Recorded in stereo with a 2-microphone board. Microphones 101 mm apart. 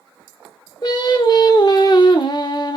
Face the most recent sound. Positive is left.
turn(degrees=45)  # may be behind; listen again after turning